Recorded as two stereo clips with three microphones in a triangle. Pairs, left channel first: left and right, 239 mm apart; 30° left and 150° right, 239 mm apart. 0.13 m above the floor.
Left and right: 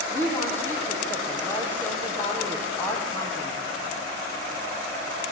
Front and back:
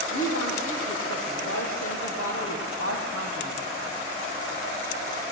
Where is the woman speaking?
10° left, 4.5 m.